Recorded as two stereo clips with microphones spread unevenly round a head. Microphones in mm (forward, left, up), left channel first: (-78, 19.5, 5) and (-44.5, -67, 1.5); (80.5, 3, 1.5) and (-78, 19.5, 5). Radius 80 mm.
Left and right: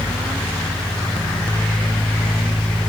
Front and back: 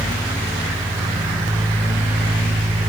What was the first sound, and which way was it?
Only background noise.